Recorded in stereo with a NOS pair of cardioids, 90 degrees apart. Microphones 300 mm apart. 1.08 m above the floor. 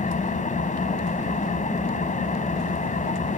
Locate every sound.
0.0 s an engine running: 25° left